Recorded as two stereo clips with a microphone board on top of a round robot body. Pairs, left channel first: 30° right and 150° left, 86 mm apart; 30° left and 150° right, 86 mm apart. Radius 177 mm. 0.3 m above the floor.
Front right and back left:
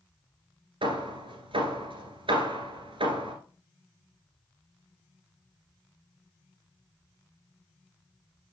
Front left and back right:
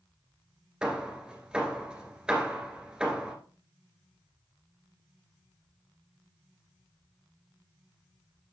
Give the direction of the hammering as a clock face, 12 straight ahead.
8 o'clock.